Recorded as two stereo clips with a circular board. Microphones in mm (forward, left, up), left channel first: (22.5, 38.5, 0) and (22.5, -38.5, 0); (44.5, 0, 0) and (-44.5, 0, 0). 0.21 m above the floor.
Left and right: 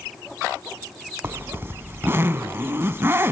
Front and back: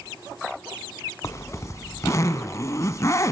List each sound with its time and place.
1.2 s a zipper: 40° right, 0.7 m